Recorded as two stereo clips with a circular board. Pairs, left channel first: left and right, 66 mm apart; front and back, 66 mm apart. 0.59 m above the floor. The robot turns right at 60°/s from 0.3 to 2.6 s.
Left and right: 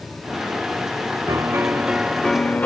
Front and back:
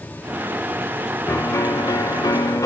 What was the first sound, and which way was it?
A piano, 50° right.